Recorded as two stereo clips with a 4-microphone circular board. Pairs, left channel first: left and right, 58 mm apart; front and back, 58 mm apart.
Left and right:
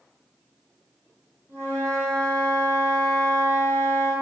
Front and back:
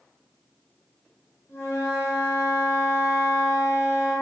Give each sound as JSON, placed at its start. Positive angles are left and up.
{"t": 1.5, "sound": "a flute", "azimuth_deg": -45, "distance_m": 1.2}